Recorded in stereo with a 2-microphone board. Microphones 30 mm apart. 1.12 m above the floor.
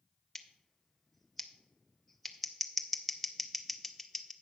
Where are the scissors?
5° left (ahead or behind), 0.6 m.